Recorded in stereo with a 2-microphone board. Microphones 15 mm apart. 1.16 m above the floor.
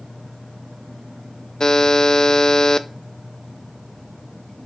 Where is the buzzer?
50° left (ahead or behind), 0.7 m.